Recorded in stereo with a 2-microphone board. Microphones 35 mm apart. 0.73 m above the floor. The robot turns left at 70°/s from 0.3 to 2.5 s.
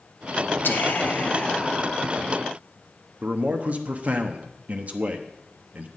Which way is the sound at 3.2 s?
40° right (ahead or behind).